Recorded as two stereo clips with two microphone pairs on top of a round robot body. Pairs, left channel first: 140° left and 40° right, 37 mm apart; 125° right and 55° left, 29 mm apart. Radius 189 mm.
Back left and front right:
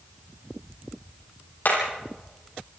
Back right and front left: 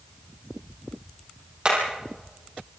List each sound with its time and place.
1.6 s hammering: 105° left, 8 m